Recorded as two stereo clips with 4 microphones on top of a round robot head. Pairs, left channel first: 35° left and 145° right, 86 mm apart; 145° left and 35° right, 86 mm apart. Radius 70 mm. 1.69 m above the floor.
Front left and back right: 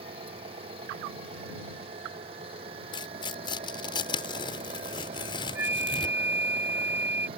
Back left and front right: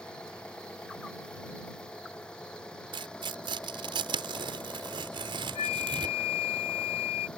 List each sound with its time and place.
0.0 s an engine running: 135° right
2.9 s tearing paper: straight ahead
5.5 s a flute: 145° left